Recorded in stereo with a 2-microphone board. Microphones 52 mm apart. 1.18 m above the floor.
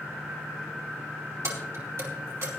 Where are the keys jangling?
65° right (ahead or behind), 2.5 m.